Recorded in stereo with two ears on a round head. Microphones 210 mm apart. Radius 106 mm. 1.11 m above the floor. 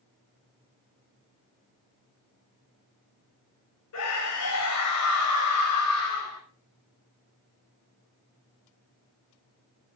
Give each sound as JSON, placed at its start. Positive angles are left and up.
{"t": 3.9, "sound": "a scream", "side_deg": 80, "distance_m": 7.0}